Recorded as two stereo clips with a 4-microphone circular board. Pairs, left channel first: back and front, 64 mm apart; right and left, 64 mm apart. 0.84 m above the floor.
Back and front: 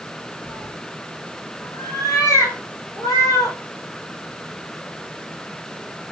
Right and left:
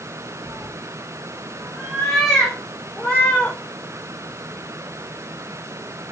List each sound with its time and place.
0.5 s a cat meowing: 175° left, 6.5 m; by 3.6 s 160° right, 7.5 m